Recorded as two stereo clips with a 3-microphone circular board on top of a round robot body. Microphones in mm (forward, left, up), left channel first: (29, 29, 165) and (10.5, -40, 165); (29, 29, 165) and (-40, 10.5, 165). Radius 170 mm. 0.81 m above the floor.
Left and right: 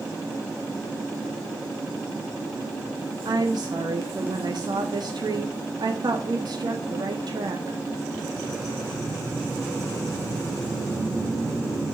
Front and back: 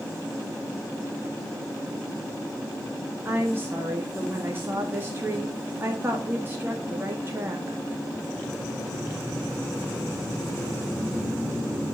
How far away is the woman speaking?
About 1.7 m.